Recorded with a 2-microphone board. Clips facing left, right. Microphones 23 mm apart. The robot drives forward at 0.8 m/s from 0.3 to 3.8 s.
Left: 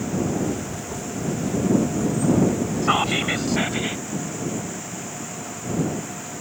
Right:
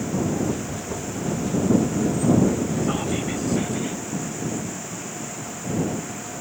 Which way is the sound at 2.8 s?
60° left (ahead or behind).